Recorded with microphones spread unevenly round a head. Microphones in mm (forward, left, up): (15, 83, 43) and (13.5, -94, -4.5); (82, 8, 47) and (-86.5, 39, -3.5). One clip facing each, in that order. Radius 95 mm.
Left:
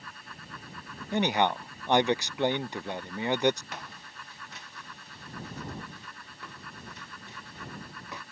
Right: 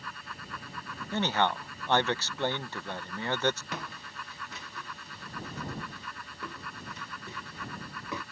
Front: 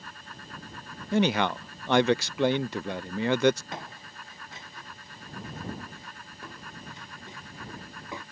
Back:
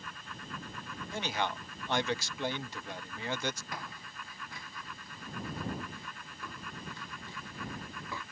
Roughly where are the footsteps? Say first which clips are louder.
Right 4 dB, front 3 dB; right.